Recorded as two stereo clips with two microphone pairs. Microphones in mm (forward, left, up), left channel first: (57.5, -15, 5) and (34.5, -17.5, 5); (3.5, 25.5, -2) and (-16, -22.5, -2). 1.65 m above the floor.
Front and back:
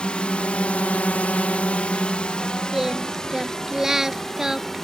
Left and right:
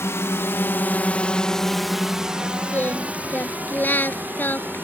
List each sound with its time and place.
0.0 s a drone: 50° left; by 4.8 s 65° right
2.7 s singing: 120° left